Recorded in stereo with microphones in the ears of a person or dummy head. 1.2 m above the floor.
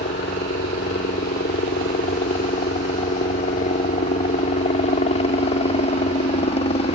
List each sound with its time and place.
0.0 s a helicopter: 40° left (ahead or behind); by 7.0 s 30° left (ahead or behind)